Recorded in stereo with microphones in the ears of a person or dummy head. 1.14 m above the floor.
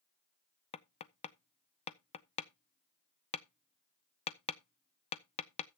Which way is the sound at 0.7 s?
35° left (ahead or behind).